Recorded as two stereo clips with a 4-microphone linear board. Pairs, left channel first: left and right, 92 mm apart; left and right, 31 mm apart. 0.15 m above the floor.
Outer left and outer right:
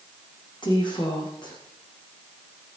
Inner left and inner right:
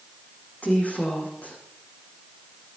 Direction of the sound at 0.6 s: 60° left (ahead or behind).